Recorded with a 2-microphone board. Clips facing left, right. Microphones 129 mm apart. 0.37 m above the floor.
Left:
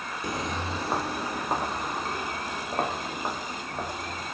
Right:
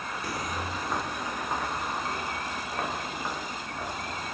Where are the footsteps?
20° left (ahead or behind), 0.6 m; by 4.2 s 35° left (ahead or behind), 5 m.